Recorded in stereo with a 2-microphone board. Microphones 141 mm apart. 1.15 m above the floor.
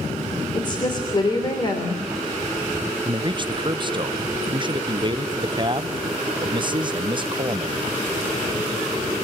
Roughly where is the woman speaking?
Left.